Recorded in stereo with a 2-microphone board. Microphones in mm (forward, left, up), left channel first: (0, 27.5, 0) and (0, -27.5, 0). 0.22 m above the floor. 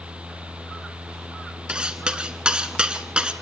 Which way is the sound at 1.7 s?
15° right (ahead or behind).